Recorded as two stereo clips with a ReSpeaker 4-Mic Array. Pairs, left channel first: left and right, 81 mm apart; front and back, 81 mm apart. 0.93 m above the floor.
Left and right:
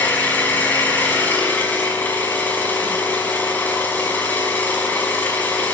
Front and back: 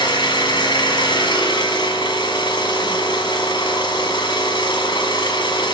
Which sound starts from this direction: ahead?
An engine running, at 0.0 s.